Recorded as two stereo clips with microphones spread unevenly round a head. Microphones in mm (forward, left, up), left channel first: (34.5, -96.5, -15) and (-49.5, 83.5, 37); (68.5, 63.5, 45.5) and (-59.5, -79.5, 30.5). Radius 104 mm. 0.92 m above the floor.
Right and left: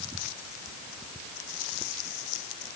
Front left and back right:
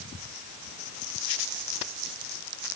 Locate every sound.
Only background noise.